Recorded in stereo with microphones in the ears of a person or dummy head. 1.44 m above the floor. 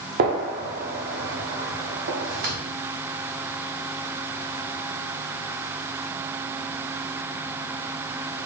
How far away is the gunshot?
About 0.9 m.